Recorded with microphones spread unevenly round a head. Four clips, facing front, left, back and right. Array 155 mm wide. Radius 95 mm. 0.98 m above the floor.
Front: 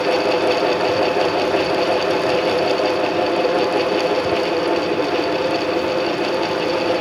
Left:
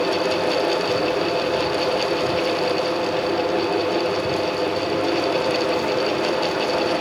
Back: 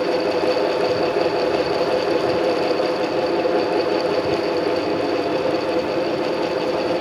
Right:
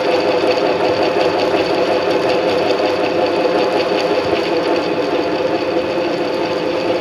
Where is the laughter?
No laughter in this recording.